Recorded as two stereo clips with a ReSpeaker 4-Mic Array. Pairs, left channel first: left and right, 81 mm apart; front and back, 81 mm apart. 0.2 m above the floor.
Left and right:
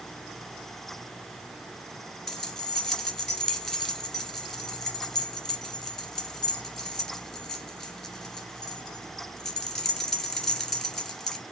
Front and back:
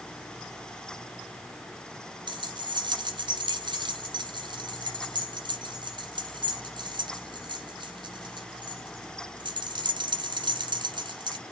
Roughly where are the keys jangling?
Behind.